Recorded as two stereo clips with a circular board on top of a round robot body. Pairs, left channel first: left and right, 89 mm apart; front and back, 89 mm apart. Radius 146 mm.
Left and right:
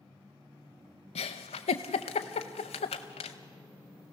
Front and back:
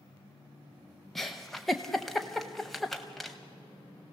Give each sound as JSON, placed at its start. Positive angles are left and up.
{"t": 1.1, "sound": "a giggle", "azimuth_deg": 90, "distance_m": 0.5}